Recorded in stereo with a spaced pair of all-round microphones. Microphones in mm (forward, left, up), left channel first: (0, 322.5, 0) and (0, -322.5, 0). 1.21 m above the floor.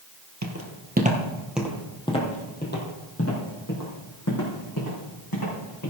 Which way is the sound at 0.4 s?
25° right (ahead or behind).